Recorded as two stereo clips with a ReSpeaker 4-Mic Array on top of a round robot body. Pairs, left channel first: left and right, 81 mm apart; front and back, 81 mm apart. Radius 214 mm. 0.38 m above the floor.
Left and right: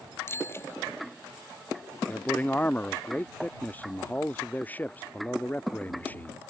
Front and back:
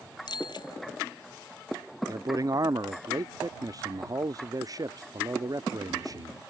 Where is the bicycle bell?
30° left.